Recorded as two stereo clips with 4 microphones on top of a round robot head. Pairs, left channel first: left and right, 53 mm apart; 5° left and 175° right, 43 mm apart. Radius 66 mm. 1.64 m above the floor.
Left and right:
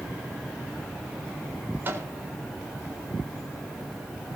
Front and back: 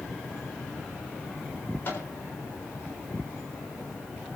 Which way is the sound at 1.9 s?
40° right.